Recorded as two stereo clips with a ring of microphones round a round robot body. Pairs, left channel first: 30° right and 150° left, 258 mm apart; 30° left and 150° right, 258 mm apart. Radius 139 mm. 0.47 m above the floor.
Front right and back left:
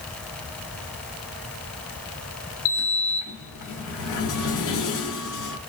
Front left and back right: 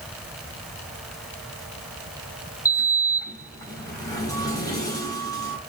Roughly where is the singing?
I don't hear singing.